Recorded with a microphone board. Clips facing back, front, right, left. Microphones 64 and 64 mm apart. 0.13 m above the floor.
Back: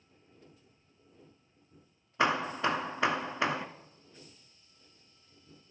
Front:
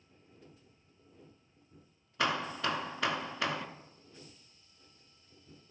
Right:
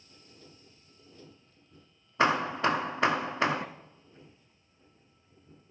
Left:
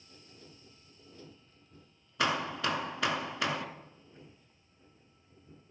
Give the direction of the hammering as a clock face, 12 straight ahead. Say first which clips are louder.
Back 4 dB, right 6 dB; 4 o'clock.